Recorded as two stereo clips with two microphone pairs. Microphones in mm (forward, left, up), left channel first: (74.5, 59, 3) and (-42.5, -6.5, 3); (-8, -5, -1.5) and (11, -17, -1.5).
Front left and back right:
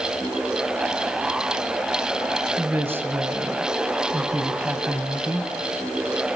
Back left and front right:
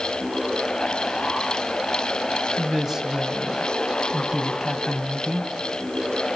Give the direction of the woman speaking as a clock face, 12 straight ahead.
3 o'clock.